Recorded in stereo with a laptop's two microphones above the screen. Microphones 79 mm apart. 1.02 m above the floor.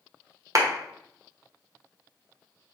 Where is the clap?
45° right (ahead or behind), 0.7 m.